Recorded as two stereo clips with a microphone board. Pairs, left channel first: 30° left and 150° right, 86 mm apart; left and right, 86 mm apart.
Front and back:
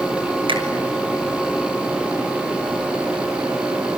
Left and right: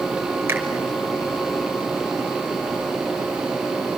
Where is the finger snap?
155° right, 6.5 m.